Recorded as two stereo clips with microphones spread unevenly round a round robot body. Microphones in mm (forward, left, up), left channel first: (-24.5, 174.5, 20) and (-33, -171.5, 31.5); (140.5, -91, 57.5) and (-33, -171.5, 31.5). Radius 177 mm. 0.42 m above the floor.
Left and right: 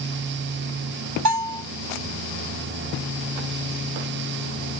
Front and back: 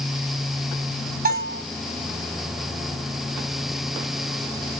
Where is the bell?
125° right, 3.5 m.